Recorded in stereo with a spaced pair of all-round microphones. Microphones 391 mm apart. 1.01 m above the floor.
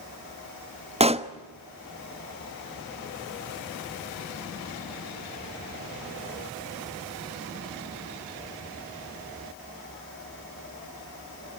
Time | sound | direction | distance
1.0 | a pop | 15° right (ahead or behind) | 1.0 m